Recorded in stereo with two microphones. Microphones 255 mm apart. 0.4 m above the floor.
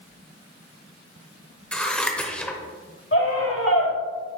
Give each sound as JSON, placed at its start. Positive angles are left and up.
{"t": 1.7, "sound": "scissors", "side_deg": 5, "distance_m": 0.8}
{"t": 3.1, "sound": "a scream", "side_deg": 55, "distance_m": 2.0}